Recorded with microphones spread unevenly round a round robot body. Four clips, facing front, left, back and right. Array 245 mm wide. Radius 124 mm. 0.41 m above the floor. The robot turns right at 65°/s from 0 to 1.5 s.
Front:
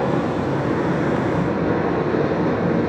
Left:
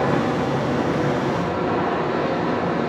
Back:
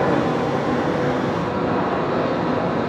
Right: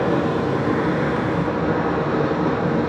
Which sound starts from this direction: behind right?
Running water, at 0.0 s.